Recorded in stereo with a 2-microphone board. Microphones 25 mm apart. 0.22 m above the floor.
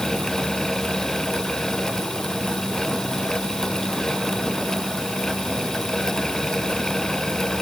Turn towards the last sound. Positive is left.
No sound to turn to.